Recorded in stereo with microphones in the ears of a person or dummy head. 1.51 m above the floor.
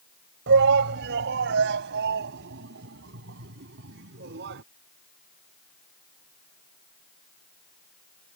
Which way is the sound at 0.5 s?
65° right (ahead or behind).